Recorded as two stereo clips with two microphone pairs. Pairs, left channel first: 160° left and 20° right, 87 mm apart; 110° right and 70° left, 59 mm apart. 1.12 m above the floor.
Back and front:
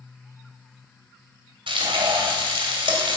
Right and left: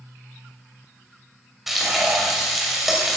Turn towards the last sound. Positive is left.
turn(degrees=-15)